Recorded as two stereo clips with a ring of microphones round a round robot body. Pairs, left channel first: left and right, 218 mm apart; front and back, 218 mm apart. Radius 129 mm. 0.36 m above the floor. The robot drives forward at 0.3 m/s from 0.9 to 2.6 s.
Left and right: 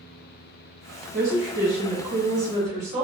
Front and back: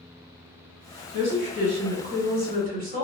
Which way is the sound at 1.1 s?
155° right.